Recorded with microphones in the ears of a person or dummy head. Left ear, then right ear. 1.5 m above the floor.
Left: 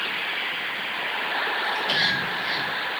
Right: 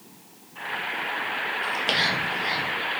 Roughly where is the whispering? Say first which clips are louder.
Right 1 dB; right.